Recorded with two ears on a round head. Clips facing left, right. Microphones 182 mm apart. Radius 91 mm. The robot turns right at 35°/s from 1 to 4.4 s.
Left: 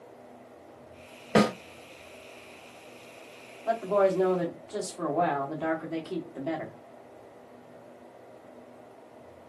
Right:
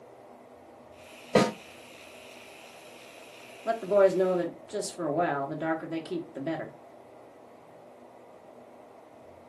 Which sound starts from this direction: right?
A woman speaking, at 3.6 s.